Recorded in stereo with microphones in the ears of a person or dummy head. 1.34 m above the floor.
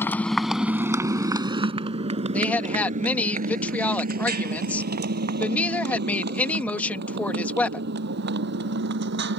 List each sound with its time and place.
0.0 s a motorcycle: 15° left (ahead or behind); by 9.4 s 65° right (ahead or behind)
2.3 s a woman speaking: 5° left (ahead or behind)